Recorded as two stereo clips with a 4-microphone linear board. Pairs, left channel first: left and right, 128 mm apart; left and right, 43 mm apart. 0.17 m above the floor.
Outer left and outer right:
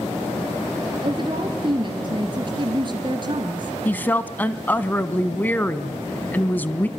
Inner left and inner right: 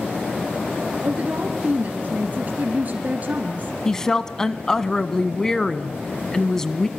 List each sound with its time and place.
1.0 s a woman speaking: 40° right (ahead or behind), 2.5 m
3.9 s a woman speaking: 15° left (ahead or behind), 1.1 m